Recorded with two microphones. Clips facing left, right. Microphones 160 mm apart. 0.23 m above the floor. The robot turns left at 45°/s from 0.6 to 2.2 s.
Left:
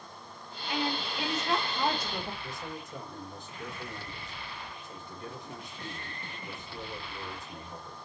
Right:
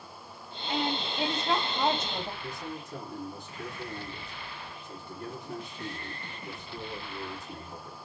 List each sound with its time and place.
0.7 s a woman speaking: 80° right, 1.8 m; by 2.3 s 145° right, 1.8 m
2.4 s a man speaking: 65° right (ahead or behind), 3.5 m